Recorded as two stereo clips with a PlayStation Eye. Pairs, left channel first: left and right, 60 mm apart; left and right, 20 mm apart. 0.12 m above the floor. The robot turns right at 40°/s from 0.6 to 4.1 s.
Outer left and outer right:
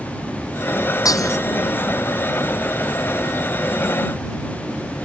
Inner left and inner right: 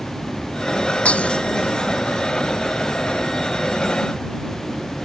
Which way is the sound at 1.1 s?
75° left (ahead or behind).